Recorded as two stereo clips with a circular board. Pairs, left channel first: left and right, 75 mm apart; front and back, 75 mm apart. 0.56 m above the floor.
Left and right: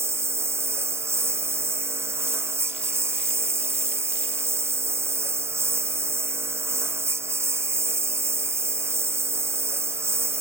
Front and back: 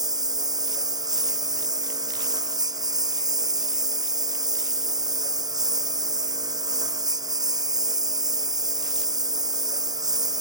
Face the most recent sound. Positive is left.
turn(degrees=-145)